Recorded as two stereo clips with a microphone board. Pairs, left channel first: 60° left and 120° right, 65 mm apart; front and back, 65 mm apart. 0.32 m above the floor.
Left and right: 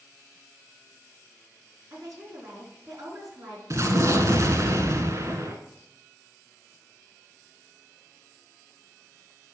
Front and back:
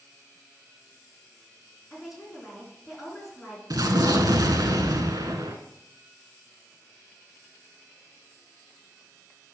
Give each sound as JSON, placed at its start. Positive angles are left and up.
{"t": 1.9, "sound": "a woman speaking", "azimuth_deg": -90, "distance_m": 4.0}
{"t": 3.7, "sound": "an explosion", "azimuth_deg": -160, "distance_m": 1.1}